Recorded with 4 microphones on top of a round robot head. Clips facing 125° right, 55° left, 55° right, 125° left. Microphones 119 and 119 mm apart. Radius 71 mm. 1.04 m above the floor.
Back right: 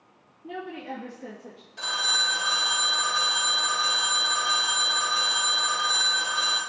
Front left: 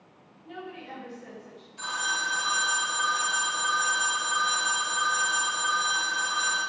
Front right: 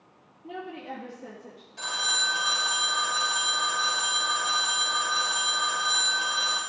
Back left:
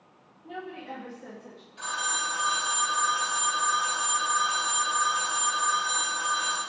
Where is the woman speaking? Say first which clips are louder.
Back right 5 dB, front right 1 dB; 115° right, 2.5 m; by 1.7 s 140° right, 1.5 m.